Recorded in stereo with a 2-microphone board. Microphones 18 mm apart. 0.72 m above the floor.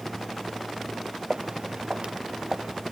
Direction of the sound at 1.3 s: 55° right (ahead or behind).